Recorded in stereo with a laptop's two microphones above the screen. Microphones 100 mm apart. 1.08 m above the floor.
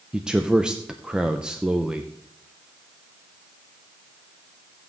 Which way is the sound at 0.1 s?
10° right (ahead or behind).